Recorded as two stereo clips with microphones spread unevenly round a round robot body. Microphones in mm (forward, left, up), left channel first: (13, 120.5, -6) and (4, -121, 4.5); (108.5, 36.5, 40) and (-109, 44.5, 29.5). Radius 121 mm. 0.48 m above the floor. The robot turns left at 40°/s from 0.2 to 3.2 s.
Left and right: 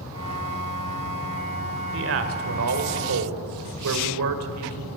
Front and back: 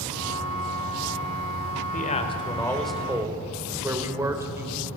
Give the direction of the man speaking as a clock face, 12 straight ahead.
2 o'clock.